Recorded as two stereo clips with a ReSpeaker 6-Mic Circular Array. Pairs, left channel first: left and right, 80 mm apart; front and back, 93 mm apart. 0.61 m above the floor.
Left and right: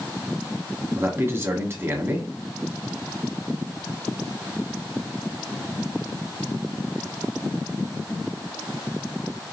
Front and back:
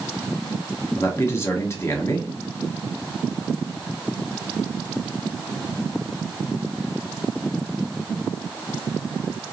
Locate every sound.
1.0 s a man speaking: 45° right, 1.4 m